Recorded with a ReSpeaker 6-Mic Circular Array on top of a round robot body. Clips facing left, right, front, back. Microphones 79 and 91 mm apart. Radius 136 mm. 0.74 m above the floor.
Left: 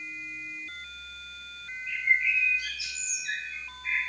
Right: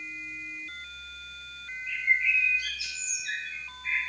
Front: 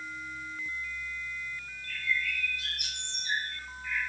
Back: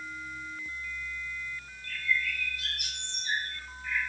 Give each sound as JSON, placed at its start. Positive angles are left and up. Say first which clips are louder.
{"t": 1.9, "sound": "a bird", "louder": "even, back 2 dB", "azimuth_deg": -175, "distance_m": 4.5}